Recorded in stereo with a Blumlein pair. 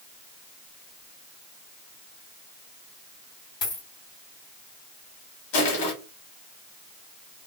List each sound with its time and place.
3.6 s a dropped coin: 40° left, 1.6 m
5.5 s crushing: 50° left, 1.1 m